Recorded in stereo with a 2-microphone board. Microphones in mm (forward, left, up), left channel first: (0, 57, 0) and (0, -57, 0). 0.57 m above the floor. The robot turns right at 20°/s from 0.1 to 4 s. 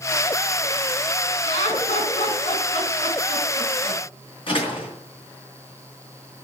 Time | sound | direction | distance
1.5 | laughter | 75° left (ahead or behind) | 5.5 m
4.5 | a door slam | 50° left (ahead or behind) | 5 m